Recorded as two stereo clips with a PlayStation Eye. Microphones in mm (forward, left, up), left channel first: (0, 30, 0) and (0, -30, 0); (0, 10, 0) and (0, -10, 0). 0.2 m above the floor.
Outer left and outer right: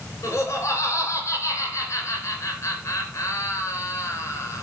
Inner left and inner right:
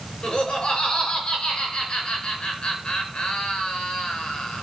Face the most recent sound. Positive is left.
turn(degrees=55)  # may be behind; listen again after turning